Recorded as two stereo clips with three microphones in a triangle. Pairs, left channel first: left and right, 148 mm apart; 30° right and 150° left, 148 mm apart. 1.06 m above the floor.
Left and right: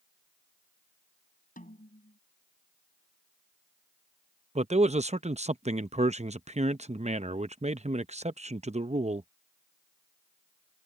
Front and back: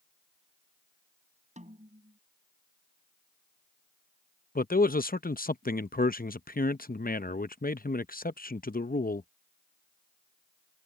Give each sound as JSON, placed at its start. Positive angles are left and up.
{"t": 1.6, "sound": "a snare drum", "azimuth_deg": 115}
{"t": 4.5, "sound": "a man speaking", "azimuth_deg": -45}